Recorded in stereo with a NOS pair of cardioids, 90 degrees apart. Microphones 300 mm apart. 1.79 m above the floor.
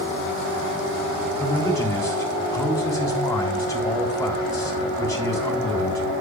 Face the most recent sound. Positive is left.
turn(degrees=10)